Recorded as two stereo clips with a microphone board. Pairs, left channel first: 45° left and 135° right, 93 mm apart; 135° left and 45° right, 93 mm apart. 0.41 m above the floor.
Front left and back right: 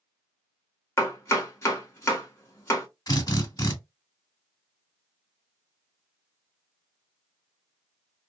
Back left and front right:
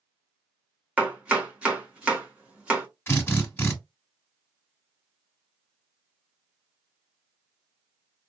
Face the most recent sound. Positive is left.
turn(degrees=75)